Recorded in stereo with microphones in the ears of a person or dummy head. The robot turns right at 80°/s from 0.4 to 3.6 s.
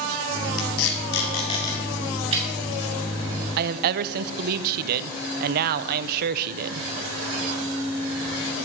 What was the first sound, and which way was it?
Tape being pulled, 75° left (ahead or behind).